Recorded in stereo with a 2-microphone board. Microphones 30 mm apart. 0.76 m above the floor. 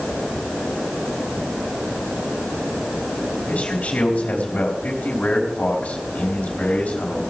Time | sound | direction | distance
3.5 | a man speaking | 60° left (ahead or behind) | 3.5 m